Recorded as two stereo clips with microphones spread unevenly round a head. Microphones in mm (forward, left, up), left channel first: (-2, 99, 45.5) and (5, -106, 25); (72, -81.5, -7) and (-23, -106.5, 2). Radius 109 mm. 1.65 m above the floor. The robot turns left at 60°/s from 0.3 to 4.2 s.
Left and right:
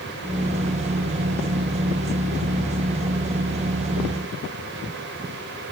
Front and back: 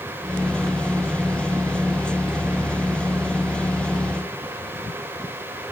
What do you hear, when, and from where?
Only background noise.